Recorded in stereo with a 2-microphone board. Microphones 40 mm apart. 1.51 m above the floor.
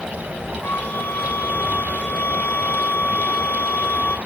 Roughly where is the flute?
Left.